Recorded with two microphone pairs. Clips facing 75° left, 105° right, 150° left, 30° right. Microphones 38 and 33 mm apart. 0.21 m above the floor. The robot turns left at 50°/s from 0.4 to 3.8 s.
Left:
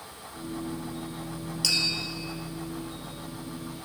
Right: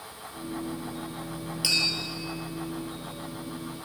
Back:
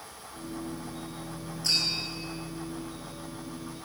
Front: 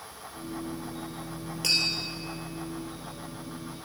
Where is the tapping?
35° right, 2.5 m; by 1.9 s 50° right, 2.5 m.